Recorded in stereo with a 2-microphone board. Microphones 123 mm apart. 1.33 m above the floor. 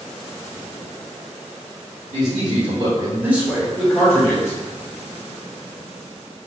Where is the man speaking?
70° right (ahead or behind), 1.6 m; by 4.6 s 20° left (ahead or behind), 2.5 m.